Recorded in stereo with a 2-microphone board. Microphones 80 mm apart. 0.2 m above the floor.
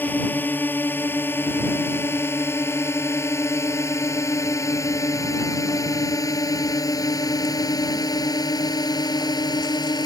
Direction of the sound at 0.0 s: 25° left (ahead or behind).